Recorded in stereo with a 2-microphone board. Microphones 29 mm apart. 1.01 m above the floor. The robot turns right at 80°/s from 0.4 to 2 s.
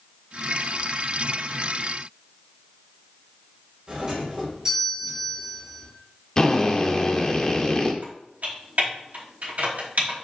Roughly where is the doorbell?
Right.